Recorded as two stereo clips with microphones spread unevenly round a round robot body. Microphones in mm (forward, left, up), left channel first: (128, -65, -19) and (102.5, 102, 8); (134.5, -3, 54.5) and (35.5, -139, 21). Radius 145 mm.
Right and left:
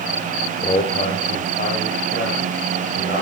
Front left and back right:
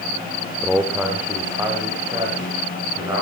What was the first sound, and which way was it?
A man speaking, 35° right.